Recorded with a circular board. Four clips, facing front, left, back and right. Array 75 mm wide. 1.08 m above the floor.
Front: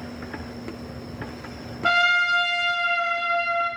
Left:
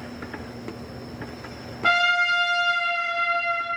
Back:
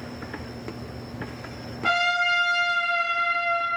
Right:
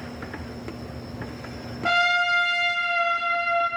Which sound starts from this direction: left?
A trumpet, at 1.8 s.